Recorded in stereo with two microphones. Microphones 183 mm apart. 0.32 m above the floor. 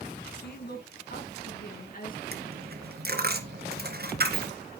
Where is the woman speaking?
65° left (ahead or behind), 3 m; by 2.2 s 50° left (ahead or behind), 4.5 m.